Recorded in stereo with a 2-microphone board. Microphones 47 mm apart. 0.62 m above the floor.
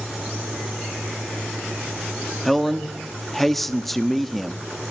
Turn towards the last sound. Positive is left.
turn(degrees=5)  # may be behind; listen again after turning